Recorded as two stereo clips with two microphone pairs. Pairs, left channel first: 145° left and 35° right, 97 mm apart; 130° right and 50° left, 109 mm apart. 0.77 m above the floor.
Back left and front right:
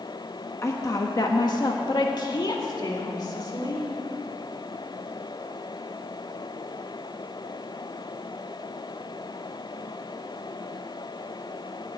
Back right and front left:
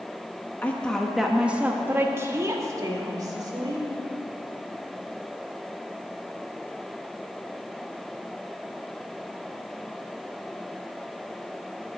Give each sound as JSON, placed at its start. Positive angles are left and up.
{"t": 0.6, "sound": "a woman speaking", "azimuth_deg": 175, "distance_m": 1.1}